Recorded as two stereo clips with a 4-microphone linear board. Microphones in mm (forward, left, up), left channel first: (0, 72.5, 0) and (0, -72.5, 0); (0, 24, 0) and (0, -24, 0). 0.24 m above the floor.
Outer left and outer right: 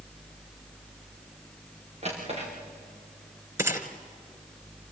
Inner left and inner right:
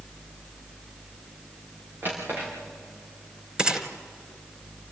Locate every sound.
2.0 s a drawer: 50° right (ahead or behind), 6.5 m
3.6 s a gunshot: 20° right (ahead or behind), 2 m